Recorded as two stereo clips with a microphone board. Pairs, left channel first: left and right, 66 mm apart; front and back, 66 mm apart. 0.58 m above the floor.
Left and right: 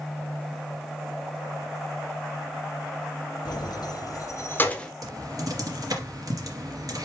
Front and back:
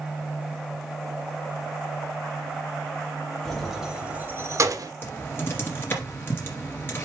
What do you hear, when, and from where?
3.5 s keys jangling: 85° left, 2.0 m; by 4.9 s 170° left, 1.2 m
5.0 s typing on a keyboard: 55° right, 2.5 m